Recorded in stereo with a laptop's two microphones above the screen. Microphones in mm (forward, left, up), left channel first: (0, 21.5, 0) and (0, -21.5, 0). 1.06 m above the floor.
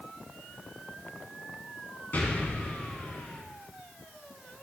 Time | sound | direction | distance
2.1 | an explosion | 40° left (ahead or behind) | 1.5 m